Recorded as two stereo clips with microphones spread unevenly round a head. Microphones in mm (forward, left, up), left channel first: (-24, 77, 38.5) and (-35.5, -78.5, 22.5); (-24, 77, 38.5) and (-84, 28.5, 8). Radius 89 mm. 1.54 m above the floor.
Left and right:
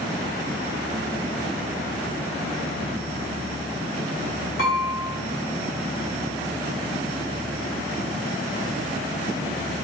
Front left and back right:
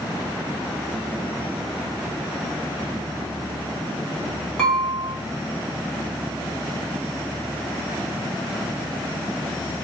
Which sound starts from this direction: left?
Dishes clattering, at 4.6 s.